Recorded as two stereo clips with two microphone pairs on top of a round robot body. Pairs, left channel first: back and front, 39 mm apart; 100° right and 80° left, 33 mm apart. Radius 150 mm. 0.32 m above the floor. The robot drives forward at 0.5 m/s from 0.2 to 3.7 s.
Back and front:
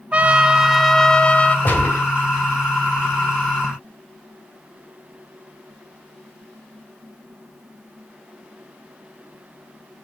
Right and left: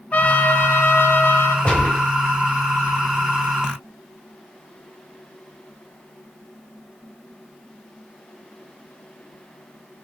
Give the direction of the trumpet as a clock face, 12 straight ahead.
2 o'clock.